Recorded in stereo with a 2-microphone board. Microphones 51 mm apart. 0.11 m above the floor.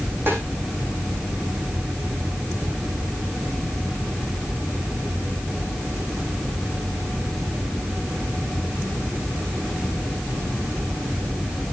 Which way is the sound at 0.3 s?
45° right (ahead or behind).